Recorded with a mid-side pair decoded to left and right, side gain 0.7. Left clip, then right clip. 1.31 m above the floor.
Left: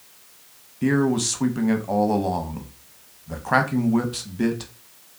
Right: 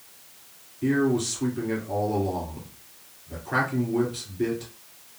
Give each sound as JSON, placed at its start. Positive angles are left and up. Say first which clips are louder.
{"t": 0.8, "sound": "a man speaking", "louder": "left 2 dB", "azimuth_deg": 70, "distance_m": 0.8}